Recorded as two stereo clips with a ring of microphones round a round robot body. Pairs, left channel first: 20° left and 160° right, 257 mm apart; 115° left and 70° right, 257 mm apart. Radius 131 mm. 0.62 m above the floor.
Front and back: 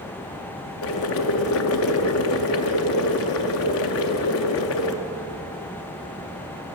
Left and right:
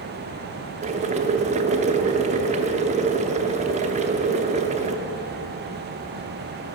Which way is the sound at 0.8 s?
5° right.